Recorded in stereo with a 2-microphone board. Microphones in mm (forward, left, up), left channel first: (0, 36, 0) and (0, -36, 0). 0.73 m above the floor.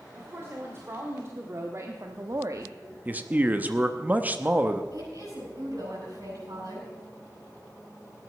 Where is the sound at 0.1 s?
35° right (ahead or behind), 2.5 m; by 2.8 s 50° right (ahead or behind), 0.7 m.